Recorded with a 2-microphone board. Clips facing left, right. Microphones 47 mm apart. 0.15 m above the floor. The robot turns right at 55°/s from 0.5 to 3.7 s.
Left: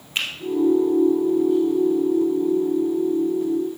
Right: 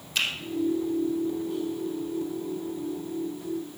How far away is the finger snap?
About 2.5 m.